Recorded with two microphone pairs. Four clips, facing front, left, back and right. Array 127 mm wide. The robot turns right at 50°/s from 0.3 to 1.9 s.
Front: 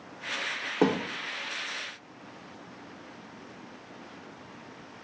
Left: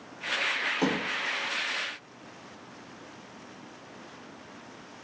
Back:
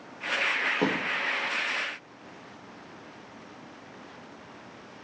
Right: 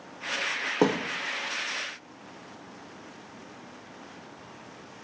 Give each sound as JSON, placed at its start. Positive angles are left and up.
{"t": 0.8, "sound": "a thud", "azimuth_deg": -80, "distance_m": 1.0}